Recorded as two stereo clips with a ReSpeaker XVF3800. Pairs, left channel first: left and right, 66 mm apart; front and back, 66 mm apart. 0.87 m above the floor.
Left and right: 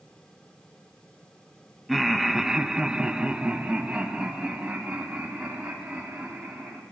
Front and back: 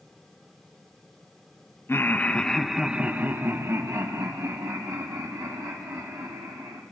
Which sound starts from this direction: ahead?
Laughter, at 1.9 s.